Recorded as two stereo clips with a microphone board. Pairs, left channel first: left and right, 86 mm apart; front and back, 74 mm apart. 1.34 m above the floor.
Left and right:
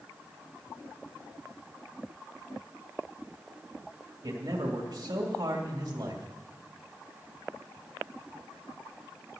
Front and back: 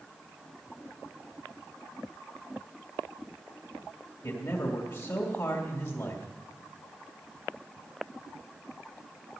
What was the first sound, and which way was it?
A man speaking, 40° right.